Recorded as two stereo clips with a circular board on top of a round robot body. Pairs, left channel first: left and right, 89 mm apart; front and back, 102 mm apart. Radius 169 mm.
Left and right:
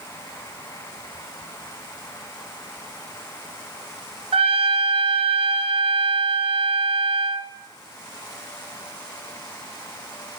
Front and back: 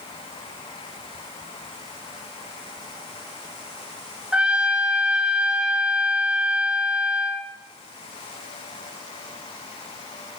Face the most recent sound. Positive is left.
turn(degrees=-100)